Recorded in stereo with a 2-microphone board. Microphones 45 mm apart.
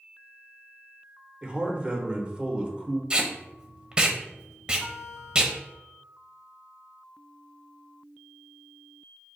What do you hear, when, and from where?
1.4 s a man speaking: 25° right (ahead or behind), 0.8 m
3.1 s tape being pulled: 20° right (ahead or behind), 0.6 m
4.8 s a guitar: 40° left (ahead or behind), 1.8 m